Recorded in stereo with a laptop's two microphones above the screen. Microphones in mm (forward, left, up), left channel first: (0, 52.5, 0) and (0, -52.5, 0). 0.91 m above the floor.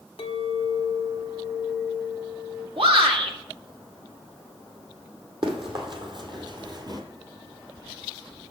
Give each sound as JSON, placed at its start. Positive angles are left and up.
{"t": 0.2, "sound": "a clink", "side_deg": 65, "distance_m": 0.9}
{"t": 2.8, "sound": "a shout", "side_deg": -65, "distance_m": 1.6}
{"t": 5.4, "sound": "running footsteps", "side_deg": -60, "distance_m": 2.5}